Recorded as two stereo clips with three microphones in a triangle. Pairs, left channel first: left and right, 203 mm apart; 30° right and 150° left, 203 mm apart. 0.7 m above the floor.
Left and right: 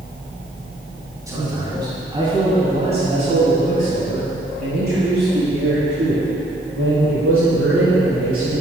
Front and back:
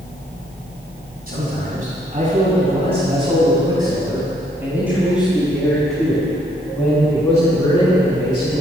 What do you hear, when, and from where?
1.3 s a man speaking: 165° right, 6 m; by 8.6 s 100° right, 7 m